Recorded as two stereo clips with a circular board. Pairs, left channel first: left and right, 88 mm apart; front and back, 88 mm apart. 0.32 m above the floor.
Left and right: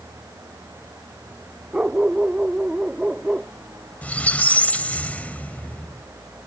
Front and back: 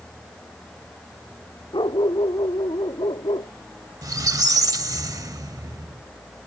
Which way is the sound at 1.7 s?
15° right.